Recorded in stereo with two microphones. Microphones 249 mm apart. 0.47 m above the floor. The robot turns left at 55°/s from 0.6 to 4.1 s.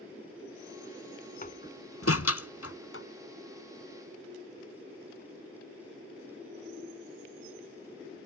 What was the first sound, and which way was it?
A door slam, 35° left (ahead or behind).